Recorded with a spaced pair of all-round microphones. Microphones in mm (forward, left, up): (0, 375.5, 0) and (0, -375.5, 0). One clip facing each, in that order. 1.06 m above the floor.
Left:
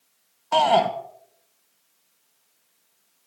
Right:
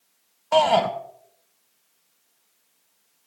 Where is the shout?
15° right (ahead or behind), 0.5 m.